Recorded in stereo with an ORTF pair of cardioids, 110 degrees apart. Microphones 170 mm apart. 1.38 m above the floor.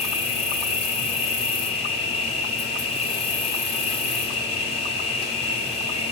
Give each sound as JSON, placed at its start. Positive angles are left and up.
{"t": 0.0, "sound": "an insect", "azimuth_deg": 35, "distance_m": 0.9}